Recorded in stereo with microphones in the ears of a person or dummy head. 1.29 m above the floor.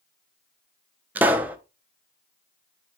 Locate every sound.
1.1 s a pop: 10° right (ahead or behind), 1.0 m